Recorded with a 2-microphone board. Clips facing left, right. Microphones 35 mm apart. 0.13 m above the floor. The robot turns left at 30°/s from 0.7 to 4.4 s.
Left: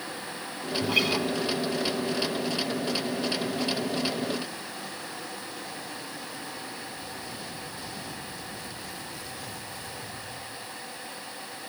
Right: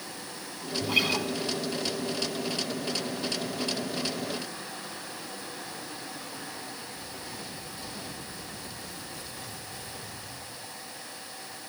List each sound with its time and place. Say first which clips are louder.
0.8 s a guitar: left 1 dB; centre (ahead or behind), 4 m; by 1.3 s 15° right (ahead or behind), 4 m